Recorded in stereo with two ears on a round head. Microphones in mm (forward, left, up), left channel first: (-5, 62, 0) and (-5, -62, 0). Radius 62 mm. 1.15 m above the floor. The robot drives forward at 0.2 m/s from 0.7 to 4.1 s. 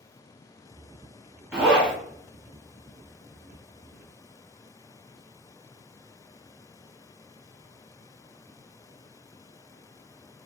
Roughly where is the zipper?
Centre.